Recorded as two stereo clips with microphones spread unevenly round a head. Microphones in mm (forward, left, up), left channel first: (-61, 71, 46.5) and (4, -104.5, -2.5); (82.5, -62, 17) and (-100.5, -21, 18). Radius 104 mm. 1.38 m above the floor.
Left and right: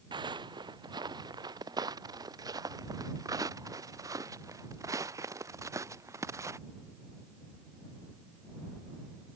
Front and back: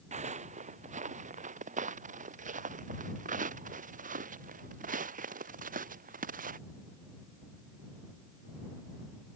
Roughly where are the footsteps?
Behind right.